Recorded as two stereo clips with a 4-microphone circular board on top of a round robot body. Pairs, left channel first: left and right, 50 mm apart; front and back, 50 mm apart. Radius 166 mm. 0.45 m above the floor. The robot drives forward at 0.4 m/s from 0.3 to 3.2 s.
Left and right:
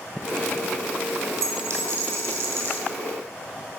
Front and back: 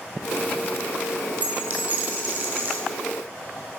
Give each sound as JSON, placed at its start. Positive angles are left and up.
{"t": 1.4, "sound": "a dropped coin", "azimuth_deg": -120, "distance_m": 1.2}